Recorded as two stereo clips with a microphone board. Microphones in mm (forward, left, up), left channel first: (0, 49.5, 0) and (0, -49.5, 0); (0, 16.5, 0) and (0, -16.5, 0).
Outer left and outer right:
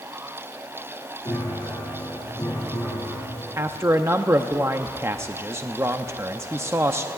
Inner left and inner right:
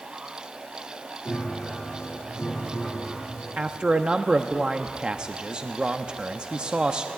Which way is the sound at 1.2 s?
25° left (ahead or behind).